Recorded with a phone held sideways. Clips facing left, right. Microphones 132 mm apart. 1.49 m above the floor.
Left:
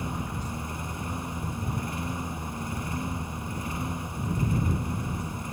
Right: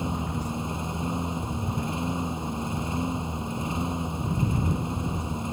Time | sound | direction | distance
0.0 | a lawn mower | 20° right (ahead or behind) | ?